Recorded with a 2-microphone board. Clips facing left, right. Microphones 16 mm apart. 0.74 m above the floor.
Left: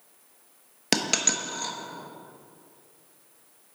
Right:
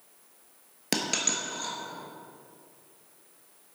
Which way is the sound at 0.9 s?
20° left (ahead or behind).